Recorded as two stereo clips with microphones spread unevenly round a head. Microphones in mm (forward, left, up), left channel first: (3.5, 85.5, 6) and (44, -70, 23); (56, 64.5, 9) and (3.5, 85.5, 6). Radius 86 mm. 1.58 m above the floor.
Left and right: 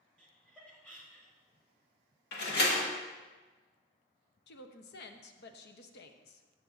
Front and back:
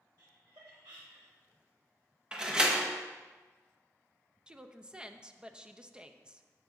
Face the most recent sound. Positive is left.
turn(degrees=85)